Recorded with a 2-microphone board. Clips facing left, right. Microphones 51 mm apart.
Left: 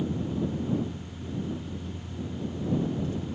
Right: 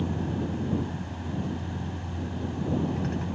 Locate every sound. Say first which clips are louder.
0.0 s a vehicle: even; 65° right (ahead or behind)